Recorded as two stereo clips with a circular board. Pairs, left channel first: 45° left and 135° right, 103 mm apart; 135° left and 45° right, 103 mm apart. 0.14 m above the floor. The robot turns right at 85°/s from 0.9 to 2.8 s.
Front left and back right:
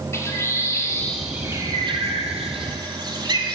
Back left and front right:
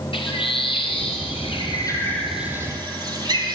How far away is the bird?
About 1.0 m.